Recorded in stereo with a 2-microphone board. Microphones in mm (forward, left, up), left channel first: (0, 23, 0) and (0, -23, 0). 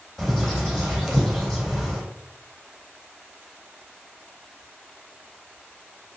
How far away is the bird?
About 3 m.